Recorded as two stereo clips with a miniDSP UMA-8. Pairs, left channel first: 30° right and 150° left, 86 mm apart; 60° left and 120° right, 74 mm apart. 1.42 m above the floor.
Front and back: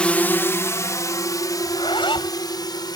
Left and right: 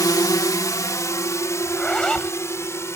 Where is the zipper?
20° right.